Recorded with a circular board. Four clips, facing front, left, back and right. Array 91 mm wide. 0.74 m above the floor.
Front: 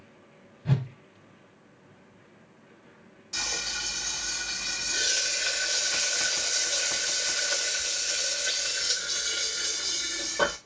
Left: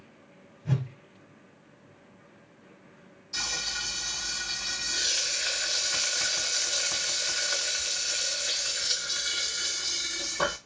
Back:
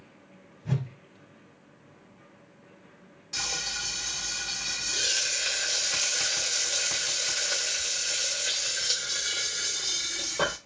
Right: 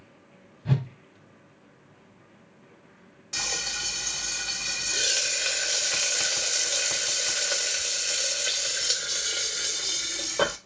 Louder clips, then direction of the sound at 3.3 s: Right 1 dB, front 1 dB; 95° right.